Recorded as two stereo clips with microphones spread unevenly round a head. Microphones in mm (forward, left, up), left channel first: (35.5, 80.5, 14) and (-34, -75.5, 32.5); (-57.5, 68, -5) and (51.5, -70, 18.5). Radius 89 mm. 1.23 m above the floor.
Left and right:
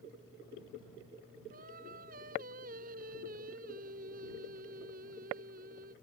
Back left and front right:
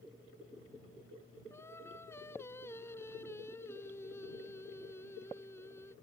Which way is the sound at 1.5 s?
155° right.